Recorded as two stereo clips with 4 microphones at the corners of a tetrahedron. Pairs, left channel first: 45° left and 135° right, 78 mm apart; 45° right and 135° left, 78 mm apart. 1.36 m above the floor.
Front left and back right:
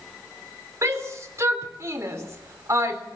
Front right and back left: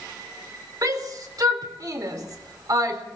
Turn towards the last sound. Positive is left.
turn(degrees=175)